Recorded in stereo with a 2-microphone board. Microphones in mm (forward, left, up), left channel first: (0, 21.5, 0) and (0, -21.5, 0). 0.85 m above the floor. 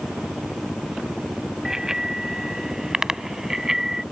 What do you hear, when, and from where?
1.6 s a bicycle bell: 15° right (ahead or behind); by 4.0 s 10° right (ahead or behind)